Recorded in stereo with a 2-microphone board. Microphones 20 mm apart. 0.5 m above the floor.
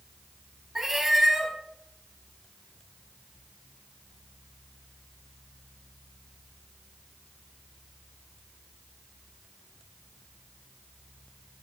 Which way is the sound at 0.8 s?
15° right (ahead or behind).